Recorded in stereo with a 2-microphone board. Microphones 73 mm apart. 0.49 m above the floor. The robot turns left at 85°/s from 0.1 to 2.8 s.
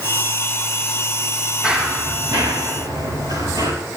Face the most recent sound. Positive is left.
turn(degrees=-65)  # may be behind; listen again after turning